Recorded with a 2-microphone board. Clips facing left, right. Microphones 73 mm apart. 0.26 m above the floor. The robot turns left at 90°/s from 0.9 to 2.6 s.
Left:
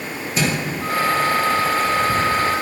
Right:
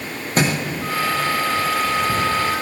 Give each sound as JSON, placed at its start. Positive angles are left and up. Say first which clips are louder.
{"t": 0.4, "sound": "a thud", "louder": "right 2 dB", "side_deg": -50, "distance_m": 6.0}